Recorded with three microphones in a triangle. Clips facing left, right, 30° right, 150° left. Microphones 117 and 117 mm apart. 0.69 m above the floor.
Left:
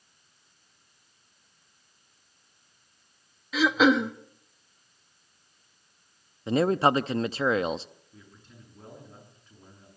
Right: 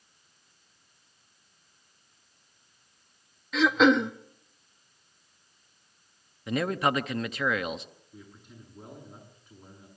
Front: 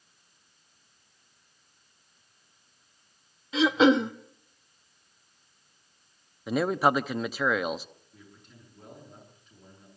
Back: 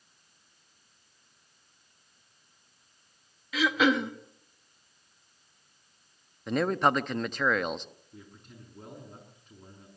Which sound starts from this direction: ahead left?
A man speaking, at 6.5 s.